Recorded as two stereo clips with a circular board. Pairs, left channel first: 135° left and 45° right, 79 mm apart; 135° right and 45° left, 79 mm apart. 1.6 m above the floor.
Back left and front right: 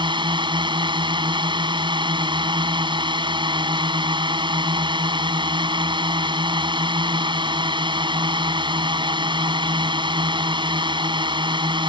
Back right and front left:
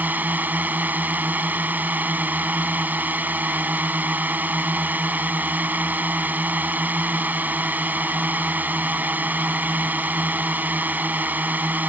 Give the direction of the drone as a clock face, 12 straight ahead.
1 o'clock.